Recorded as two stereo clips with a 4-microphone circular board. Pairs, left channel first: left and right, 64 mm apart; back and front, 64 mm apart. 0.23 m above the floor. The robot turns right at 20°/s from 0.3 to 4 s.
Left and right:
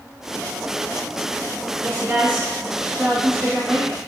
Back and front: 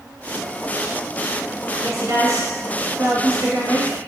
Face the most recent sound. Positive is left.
turn(degrees=20)